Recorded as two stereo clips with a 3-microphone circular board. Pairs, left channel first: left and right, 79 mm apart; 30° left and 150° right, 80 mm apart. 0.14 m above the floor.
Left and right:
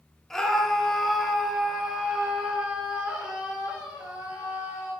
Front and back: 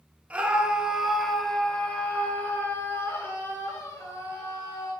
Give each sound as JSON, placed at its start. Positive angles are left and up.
{"t": 0.3, "sound": "a scream", "azimuth_deg": 170, "distance_m": 1.7}